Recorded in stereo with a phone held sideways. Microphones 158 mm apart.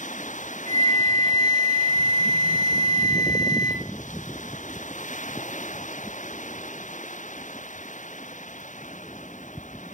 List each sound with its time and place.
0.7 s a flute: 25° left (ahead or behind), 1.4 m